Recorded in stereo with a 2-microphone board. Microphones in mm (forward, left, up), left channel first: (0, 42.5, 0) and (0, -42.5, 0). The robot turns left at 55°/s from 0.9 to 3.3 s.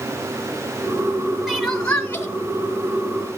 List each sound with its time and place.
1.5 s crying: 175° right, 1.5 m; by 2.3 s 140° left, 1.5 m